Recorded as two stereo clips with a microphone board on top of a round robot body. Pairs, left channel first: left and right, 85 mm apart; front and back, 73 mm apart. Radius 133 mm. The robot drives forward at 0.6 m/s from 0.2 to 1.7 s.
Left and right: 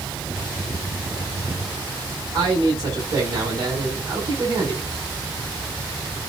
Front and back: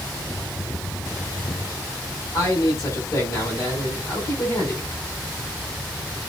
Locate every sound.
2.3 s a man speaking: 45° right, 5.5 m